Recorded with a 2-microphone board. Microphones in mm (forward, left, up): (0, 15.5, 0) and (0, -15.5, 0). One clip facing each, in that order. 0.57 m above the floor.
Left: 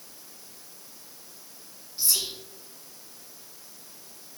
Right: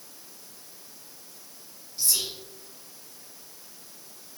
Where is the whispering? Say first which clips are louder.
Even; 15° left (ahead or behind), 1.4 m.